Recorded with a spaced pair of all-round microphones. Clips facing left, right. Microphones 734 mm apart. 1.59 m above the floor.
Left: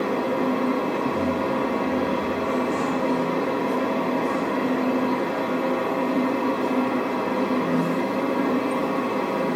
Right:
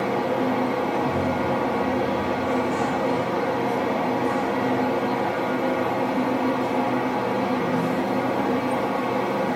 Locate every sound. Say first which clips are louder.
0.0 s a fan: even; 20° right (ahead or behind), 1.3 m